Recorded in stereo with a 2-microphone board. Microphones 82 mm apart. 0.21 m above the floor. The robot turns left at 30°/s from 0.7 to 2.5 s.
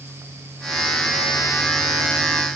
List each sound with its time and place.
Only background noise.